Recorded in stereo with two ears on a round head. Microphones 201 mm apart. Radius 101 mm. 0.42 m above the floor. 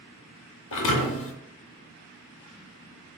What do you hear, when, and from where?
0.7 s a thud: 60° left (ahead or behind), 0.6 m